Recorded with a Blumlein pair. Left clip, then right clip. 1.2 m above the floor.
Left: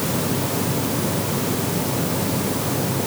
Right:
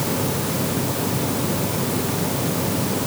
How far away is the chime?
I don't hear a chime.